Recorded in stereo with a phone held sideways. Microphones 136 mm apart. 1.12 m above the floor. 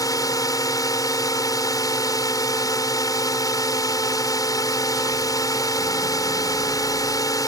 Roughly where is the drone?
Left.